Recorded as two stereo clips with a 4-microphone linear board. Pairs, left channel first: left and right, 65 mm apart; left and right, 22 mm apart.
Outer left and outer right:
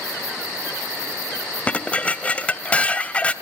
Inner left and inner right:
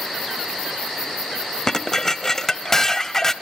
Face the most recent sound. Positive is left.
turn(degrees=20)  # may be behind; listen again after turning